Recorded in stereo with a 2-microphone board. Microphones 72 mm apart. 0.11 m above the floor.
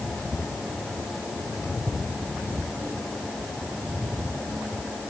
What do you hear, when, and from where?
Only background noise.